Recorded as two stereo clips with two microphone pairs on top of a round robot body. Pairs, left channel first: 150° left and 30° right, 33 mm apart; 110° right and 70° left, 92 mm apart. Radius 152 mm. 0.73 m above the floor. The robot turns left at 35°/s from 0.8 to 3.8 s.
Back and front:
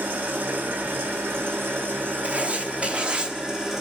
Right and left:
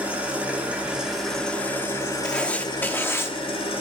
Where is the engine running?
5° right, 1.6 m; by 3.8 s 110° right, 1.6 m.